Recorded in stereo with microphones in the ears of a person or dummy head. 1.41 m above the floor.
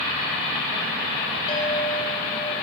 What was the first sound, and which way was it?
A clink, 25° left (ahead or behind).